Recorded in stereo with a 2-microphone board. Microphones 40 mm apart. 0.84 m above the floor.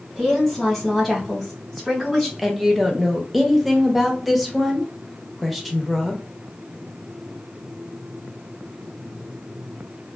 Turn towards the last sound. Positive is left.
turn(degrees=0)  # may be behind; listen again after turning